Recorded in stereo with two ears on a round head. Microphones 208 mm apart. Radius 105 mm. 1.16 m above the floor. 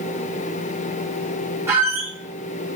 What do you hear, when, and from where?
1.7 s a squeak: 10° right (ahead or behind), 0.7 m